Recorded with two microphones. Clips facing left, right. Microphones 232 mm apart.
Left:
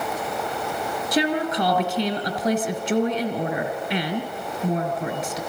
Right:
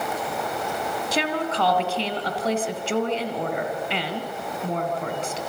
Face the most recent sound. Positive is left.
turn(degrees=15)  # may be behind; listen again after turning